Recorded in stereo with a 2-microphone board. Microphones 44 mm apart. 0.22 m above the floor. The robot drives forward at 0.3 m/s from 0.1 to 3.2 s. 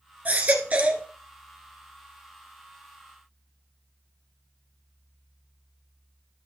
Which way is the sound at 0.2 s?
35° right (ahead or behind).